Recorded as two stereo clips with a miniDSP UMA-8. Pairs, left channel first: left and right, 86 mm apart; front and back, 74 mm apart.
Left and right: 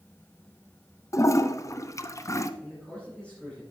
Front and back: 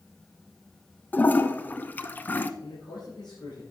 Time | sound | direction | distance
1.1 | a toilet flushing | 55° left | 0.7 m
2.6 | a man speaking | 15° left | 5 m